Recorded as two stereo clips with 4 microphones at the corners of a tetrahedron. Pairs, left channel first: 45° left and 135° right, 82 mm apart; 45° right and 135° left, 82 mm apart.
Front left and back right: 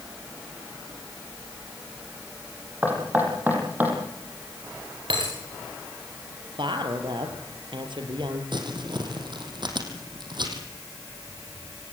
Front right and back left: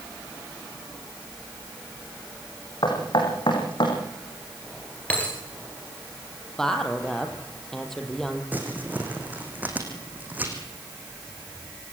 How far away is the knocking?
About 6 m.